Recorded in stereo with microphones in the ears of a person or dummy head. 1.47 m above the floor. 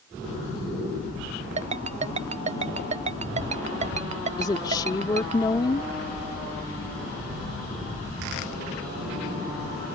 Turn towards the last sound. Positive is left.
turn(degrees=25)  # may be behind; listen again after turning